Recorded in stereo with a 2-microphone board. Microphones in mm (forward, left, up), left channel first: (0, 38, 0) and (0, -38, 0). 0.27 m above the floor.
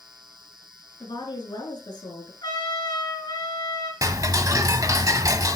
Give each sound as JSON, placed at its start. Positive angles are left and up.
{"t": 1.0, "sound": "a woman speaking", "side_deg": 70, "distance_m": 4.0}
{"t": 2.4, "sound": "a trumpet", "side_deg": 65, "distance_m": 4.5}
{"t": 4.0, "sound": "ticking", "side_deg": -50, "distance_m": 0.9}